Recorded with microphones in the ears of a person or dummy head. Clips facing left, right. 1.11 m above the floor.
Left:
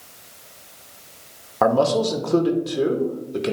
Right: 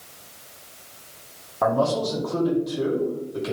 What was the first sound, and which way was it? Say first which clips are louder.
A man speaking: left 4 dB; 75° left (ahead or behind).